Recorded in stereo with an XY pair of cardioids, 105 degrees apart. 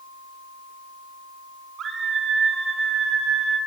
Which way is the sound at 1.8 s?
50° right.